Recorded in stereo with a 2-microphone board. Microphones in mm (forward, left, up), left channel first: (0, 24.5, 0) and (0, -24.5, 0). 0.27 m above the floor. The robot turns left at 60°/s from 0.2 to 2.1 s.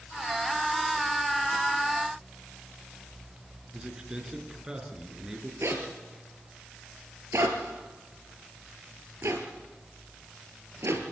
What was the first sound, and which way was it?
A man speaking, 15° right (ahead or behind).